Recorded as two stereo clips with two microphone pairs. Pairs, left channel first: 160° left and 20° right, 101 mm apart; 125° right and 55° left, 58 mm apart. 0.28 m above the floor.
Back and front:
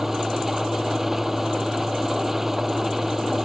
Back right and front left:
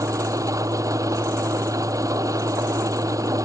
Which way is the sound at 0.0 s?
65° left.